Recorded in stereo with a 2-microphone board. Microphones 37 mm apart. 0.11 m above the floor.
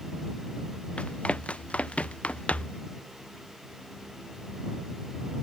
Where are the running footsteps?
30° left (ahead or behind); by 2.8 s 35° left (ahead or behind).